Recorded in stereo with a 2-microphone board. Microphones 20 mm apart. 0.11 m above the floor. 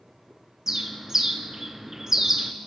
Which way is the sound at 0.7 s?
25° right (ahead or behind).